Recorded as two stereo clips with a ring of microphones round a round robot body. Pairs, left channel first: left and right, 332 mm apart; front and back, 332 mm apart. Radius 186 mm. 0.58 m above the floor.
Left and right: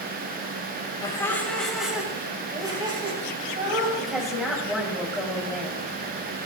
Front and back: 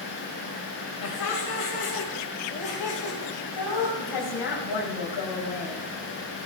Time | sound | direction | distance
1.0 | laughter | 10° left | 3 m
4.0 | a woman speaking | straight ahead | 3.5 m